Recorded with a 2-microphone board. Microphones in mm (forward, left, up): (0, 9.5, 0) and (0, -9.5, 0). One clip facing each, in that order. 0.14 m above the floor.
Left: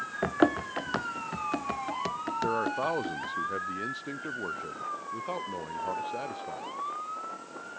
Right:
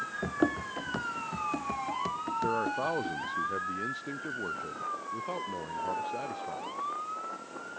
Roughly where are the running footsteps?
Left.